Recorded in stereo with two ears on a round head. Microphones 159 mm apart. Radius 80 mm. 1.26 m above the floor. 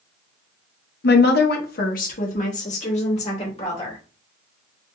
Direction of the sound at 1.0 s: 60° left (ahead or behind).